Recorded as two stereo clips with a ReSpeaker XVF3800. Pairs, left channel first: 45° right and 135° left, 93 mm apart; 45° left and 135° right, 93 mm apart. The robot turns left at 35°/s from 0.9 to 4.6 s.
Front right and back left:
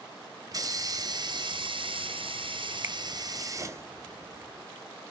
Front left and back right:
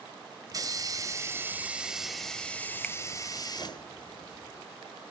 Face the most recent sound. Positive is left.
turn(degrees=55)